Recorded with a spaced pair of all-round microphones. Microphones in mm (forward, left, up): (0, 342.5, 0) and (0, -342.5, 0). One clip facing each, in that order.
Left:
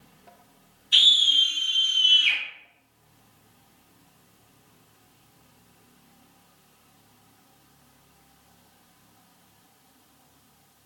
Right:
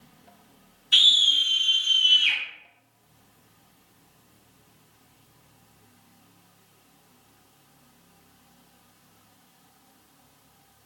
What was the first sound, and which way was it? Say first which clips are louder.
A scream: even; 75° right (ahead or behind).